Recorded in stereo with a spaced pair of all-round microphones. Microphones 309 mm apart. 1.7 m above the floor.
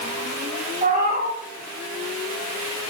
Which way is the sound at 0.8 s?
30° right (ahead or behind).